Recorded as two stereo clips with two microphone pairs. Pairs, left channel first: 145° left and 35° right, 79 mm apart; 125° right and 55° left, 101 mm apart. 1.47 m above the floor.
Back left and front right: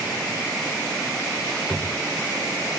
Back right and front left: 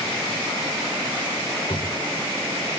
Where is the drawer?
120° right, 1.8 m.